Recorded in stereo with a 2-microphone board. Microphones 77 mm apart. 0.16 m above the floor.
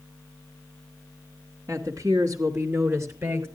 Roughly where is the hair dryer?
No hair dryer in this recording.